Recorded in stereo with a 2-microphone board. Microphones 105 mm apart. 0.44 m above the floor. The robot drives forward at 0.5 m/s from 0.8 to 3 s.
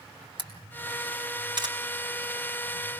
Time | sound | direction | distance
0.4 | a camera shutter | 50° right (ahead or behind) | 4 m